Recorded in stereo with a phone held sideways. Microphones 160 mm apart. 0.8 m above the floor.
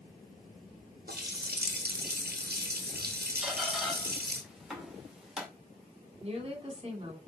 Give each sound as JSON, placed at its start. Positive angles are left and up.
{"t": 1.1, "sound": "a running tap", "side_deg": -80, "distance_m": 1.2}
{"t": 3.4, "sound": "a squeak", "side_deg": -5, "distance_m": 2.0}
{"t": 6.2, "sound": "a woman speaking", "side_deg": -35, "distance_m": 2.5}